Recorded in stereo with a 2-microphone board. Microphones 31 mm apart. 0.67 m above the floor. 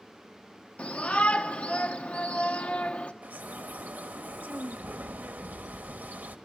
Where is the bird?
80° right, 1.1 m.